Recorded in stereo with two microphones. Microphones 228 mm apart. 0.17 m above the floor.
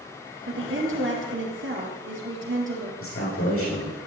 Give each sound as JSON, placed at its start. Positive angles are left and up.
{"t": 0.5, "sound": "a woman speaking", "side_deg": -60, "distance_m": 3.5}
{"t": 3.0, "sound": "a man speaking", "side_deg": 65, "distance_m": 6.5}